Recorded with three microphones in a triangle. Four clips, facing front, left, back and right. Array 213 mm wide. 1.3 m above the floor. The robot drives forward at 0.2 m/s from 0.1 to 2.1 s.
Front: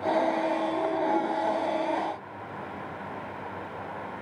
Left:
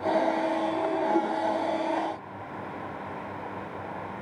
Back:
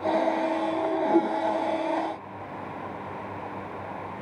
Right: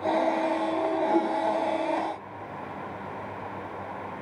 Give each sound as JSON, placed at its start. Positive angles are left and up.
{"t": 1.1, "sound": "a whoosh", "azimuth_deg": -170, "distance_m": 1.2}